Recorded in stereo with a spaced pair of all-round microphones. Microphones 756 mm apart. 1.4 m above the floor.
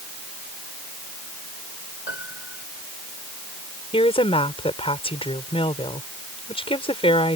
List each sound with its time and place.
2.1 s a piano: 60° left (ahead or behind)
3.9 s a woman speaking: 5° left (ahead or behind)